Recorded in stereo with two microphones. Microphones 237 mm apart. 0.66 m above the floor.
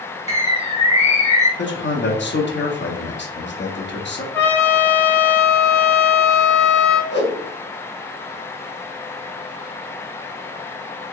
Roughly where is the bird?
Left.